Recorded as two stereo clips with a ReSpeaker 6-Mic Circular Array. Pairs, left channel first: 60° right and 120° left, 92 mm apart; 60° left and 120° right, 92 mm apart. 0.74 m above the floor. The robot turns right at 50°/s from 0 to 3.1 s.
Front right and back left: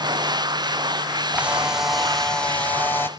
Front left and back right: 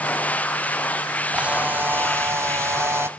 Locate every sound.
1.3 s a camera shutter: 175° left, 0.5 m; by 3.1 s 95° right, 0.5 m